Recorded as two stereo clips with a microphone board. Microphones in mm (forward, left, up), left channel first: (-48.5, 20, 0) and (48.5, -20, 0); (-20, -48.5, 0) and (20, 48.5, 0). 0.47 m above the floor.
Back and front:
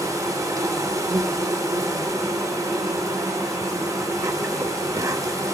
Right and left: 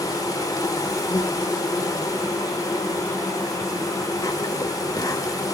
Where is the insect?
70° right, 1.3 m.